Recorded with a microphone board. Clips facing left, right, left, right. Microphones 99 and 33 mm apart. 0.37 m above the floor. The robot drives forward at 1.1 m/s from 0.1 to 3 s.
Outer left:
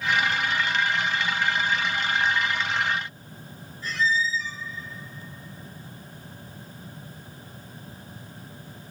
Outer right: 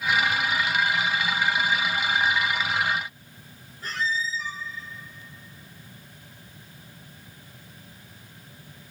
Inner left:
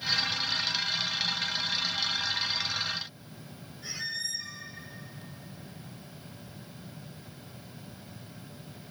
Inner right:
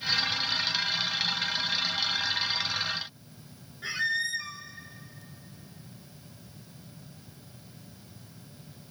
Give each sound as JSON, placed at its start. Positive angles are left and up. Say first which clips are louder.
{"t": 3.8, "sound": "a squeak", "louder": "outer left 3 dB, inner right 8 dB", "side_deg": -50, "distance_m": 0.8}